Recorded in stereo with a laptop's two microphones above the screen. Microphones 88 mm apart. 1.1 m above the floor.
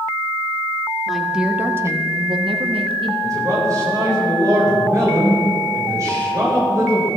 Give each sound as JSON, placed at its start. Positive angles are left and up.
{"t": 1.1, "sound": "a woman speaking", "side_deg": 0, "distance_m": 1.8}
{"t": 3.2, "sound": "a man speaking", "side_deg": -40, "distance_m": 4.5}